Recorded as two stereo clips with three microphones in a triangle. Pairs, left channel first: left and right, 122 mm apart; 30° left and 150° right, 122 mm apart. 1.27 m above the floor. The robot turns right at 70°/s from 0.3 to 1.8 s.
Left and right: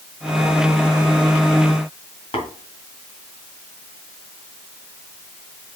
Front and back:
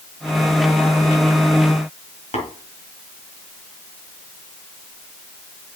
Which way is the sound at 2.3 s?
50° left.